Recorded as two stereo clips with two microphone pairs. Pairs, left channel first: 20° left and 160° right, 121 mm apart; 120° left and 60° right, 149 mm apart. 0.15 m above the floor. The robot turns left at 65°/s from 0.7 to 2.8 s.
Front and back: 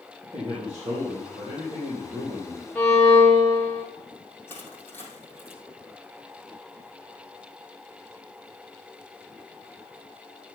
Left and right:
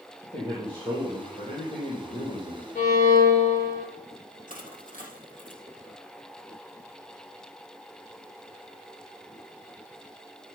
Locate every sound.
0.2 s a man speaking: 120° right, 4.5 m; by 2.6 s 115° left, 4.5 m
2.8 s a violin: 105° left, 6 m
4.5 s crushing: 95° left, 3.5 m